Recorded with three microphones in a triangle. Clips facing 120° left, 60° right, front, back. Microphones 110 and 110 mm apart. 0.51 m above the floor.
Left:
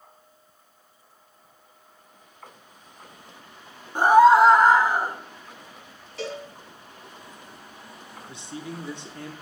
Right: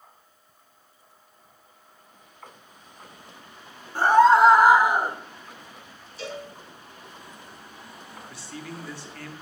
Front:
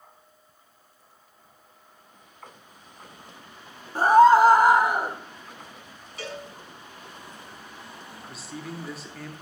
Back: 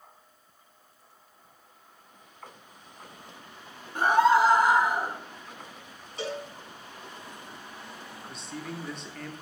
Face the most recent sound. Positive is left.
turn(degrees=85)